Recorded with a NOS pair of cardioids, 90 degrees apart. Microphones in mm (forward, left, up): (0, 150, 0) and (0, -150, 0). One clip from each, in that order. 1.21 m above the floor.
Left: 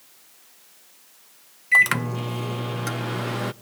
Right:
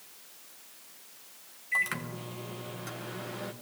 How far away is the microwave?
About 0.8 m.